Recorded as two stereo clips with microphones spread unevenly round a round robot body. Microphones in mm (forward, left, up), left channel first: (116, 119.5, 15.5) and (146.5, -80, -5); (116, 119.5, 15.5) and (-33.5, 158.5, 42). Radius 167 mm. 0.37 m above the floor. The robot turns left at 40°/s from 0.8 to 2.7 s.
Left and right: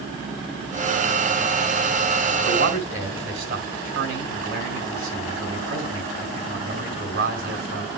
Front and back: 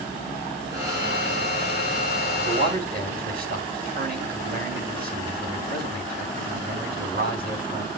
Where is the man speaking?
130° right, 3.5 m; by 7.9 s 140° right, 3.5 m.